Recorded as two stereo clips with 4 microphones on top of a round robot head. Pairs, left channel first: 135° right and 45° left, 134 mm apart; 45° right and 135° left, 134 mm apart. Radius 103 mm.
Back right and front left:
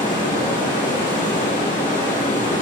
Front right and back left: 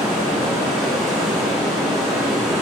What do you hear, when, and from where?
0.0 s running water: 165° right, 4 m